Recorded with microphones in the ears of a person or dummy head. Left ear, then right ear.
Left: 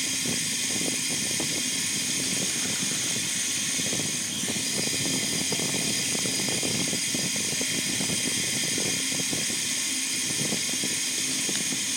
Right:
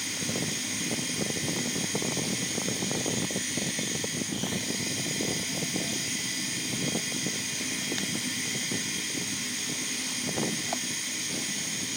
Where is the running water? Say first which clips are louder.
Left 3 dB; 55° left (ahead or behind), 2.5 m.